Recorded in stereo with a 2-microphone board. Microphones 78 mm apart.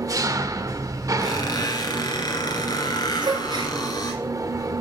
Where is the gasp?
80° right, 2 m.